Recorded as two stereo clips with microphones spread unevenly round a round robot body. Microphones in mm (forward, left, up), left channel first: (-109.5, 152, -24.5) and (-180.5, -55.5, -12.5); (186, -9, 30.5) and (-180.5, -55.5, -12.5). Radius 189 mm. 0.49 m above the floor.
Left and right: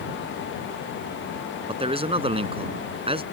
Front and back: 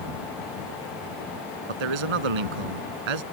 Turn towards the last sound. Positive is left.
turn(degrees=-175)